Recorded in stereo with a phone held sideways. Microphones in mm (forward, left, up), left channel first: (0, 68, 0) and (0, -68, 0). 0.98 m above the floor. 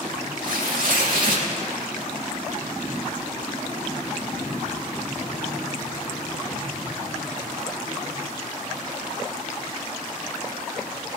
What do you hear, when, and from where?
0.4 s tearing paper: 65° right (ahead or behind), 2 m